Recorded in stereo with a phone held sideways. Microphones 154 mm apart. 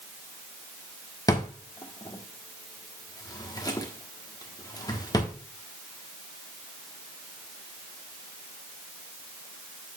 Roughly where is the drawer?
Left.